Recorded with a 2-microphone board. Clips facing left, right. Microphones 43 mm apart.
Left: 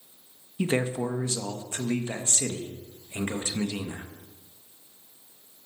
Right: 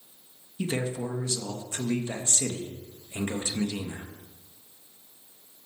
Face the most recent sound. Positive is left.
turn(degrees=30)  # may be behind; listen again after turning